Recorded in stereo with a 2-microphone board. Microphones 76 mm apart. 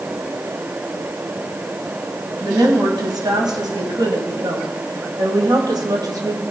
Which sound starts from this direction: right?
A woman speaking, at 2.4 s.